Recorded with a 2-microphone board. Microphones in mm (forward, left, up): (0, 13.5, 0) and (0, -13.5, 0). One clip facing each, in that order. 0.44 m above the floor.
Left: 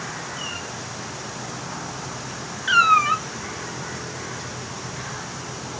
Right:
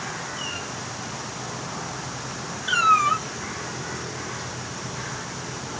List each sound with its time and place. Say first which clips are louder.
2.7 s a cat meowing: left 2 dB; 40° left (ahead or behind), 1.3 m